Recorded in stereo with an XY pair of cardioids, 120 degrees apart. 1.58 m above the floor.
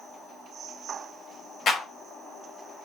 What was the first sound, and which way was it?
A clap, 50° left.